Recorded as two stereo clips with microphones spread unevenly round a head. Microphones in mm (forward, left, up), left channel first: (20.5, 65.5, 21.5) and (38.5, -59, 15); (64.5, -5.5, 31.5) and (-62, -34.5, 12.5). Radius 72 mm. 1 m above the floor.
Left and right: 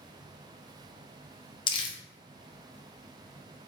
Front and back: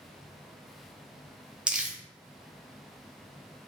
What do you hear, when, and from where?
1.7 s crumpling: 125° left, 0.6 m